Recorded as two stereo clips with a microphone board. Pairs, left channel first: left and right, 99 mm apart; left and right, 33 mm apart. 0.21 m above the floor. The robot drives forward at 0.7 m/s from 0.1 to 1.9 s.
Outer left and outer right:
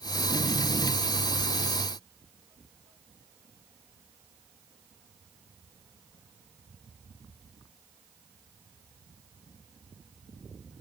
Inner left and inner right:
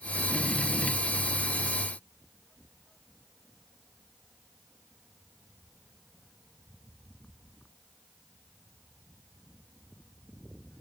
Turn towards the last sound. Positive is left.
No sound to turn to.